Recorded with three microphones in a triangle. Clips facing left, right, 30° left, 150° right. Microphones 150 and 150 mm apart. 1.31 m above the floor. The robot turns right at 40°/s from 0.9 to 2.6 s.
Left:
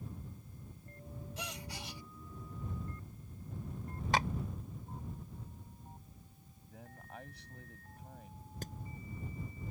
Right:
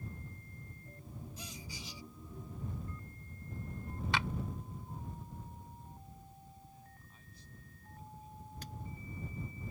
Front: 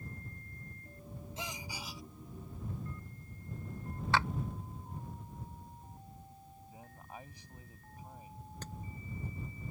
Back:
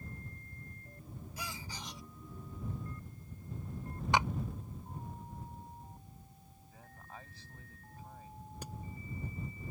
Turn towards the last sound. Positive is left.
turn(degrees=135)